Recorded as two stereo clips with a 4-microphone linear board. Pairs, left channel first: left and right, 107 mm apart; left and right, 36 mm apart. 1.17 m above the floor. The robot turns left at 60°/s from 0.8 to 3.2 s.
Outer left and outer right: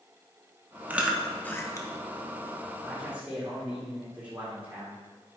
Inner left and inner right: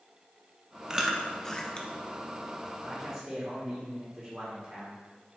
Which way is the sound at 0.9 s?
15° right (ahead or behind).